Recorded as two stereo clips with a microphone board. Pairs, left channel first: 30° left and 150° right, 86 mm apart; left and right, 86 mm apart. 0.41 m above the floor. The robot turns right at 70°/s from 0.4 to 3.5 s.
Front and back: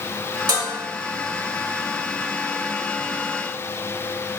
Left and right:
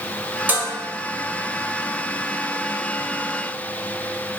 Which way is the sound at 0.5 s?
155° right.